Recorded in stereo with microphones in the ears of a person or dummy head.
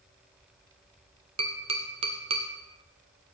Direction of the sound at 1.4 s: 30° right (ahead or behind).